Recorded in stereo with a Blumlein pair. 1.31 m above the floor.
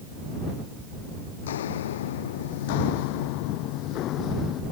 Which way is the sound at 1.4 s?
60° left.